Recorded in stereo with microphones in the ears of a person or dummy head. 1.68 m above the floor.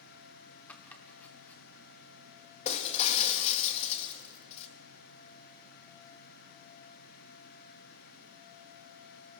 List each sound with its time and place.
0.7 s chopping: 10° left (ahead or behind), 1.2 m
2.6 s breaking glass: 40° left (ahead or behind), 1.6 m